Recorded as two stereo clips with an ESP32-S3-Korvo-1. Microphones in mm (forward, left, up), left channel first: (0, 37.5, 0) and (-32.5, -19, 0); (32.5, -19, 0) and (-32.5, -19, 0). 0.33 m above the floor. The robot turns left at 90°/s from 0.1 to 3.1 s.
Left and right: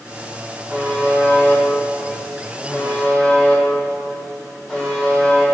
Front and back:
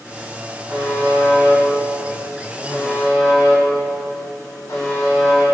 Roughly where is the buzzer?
Behind.